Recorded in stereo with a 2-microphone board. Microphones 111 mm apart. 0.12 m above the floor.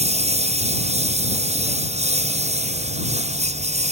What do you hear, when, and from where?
0.0 s a lawn mower: 75° right (ahead or behind); by 3.9 s 80° right